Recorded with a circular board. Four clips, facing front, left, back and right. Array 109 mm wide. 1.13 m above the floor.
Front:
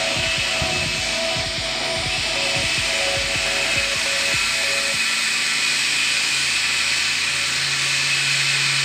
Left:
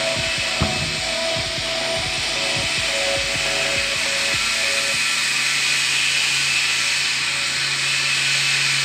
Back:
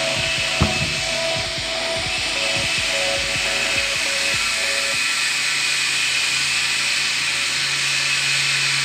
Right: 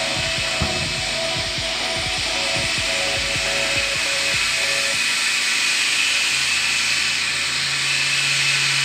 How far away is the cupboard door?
About 0.7 m.